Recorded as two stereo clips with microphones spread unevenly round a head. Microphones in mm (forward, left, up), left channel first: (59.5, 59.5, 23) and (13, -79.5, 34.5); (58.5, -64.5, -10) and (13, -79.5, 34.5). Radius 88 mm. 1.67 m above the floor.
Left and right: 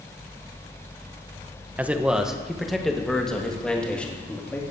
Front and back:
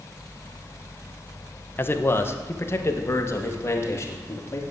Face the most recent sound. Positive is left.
turn(degrees=-10)